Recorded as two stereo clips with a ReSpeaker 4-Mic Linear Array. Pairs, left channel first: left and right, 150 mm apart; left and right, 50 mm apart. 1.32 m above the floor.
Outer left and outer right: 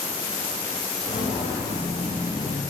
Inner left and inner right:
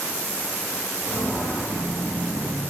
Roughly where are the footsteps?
Centre.